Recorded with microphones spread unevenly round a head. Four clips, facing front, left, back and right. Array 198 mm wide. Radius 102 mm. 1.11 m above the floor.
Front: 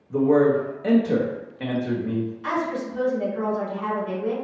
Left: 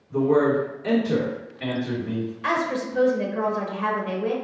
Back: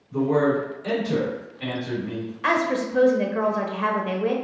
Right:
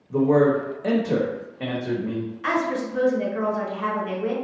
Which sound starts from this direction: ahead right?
A man speaking, at 0.1 s.